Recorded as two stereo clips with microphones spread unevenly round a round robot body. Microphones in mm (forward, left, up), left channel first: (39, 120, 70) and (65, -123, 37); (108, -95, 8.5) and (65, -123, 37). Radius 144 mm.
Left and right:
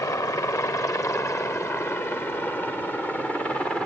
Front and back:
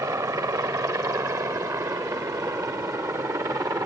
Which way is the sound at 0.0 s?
175° left.